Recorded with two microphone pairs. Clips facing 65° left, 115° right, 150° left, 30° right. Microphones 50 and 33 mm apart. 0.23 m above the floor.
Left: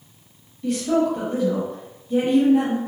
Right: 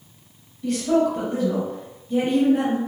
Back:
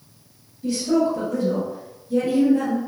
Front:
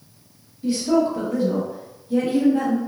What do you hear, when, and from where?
0.6 s a woman speaking: 15° right, 1.0 m